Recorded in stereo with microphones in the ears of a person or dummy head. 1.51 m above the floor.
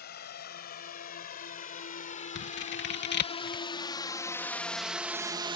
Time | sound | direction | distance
0.0 | a drone | 50° left (ahead or behind) | ?
2.4 | scissors | 55° left (ahead or behind) | ?